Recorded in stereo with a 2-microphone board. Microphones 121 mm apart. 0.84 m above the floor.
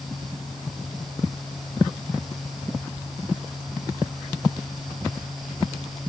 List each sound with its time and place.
Only background noise.